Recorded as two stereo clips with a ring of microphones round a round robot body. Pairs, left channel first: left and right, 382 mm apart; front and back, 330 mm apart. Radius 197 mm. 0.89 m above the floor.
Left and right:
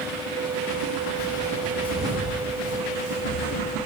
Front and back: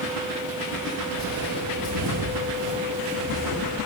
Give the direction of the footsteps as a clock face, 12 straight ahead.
7 o'clock.